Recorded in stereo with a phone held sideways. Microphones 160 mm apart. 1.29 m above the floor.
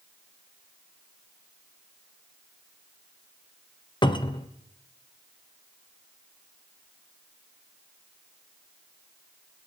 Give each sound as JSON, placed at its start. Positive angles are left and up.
{"t": 4.0, "sound": "a cupboard door", "side_deg": 30, "distance_m": 0.6}